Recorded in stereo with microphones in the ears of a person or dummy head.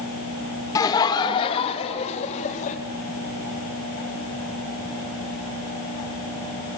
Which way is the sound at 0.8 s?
25° left (ahead or behind).